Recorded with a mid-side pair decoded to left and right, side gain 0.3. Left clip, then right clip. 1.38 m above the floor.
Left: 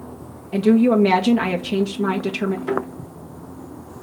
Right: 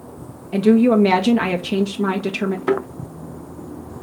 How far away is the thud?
About 3.5 m.